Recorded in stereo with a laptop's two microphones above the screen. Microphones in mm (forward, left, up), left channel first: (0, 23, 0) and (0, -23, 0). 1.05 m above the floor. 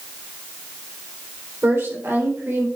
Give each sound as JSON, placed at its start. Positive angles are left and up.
{"t": 1.6, "sound": "a woman speaking", "side_deg": -65, "distance_m": 3.0}